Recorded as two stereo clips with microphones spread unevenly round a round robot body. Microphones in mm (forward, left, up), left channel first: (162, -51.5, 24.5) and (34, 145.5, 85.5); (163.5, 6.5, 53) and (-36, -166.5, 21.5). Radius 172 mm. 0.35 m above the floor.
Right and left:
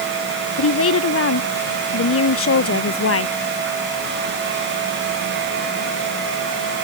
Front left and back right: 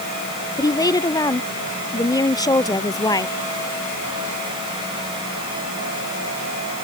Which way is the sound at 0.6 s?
35° right.